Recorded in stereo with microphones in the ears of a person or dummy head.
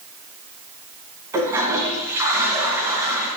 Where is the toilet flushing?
15° right (ahead or behind), 3 m.